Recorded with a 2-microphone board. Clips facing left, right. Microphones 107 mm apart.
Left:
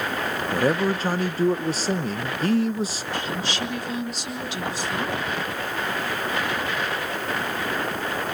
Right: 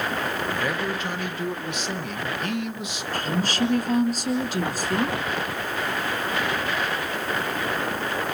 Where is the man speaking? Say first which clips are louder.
Left 5 dB; 35° left (ahead or behind), 0.8 m.